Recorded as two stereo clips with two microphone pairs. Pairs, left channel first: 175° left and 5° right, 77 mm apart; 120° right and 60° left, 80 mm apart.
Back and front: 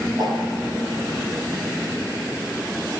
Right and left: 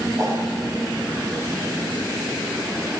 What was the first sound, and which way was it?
A whoosh, 15° left.